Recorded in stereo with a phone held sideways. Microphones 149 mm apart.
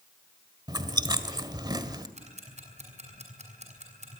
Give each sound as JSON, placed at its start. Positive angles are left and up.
{"t": 0.7, "sound": "chewing", "side_deg": -30, "distance_m": 1.6}
{"t": 2.2, "sound": "ticking", "side_deg": -50, "distance_m": 5.5}